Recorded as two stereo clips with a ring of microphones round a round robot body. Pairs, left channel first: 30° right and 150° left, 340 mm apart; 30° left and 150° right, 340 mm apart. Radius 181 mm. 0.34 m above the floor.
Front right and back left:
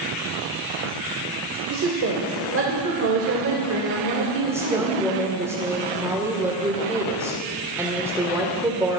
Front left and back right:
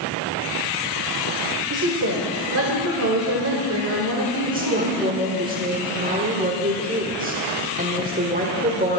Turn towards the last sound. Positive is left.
turn(degrees=-140)